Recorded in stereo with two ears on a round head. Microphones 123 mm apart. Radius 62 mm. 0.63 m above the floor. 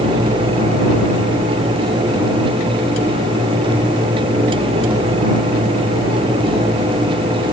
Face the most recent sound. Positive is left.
No sound to turn to.